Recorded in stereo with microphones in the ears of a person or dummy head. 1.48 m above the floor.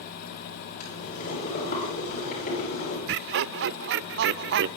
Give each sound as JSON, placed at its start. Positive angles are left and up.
{"t": 0.8, "sound": "boiling", "side_deg": 50, "distance_m": 9.5}
{"t": 3.1, "sound": "laughter", "side_deg": -60, "distance_m": 0.6}